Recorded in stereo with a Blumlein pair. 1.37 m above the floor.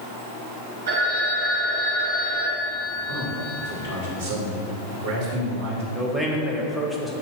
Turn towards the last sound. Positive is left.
turn(degrees=5)